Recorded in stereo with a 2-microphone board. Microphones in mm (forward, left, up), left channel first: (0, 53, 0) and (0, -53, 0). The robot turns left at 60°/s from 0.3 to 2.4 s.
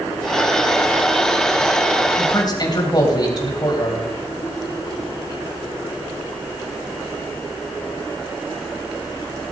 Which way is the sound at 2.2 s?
50° left (ahead or behind).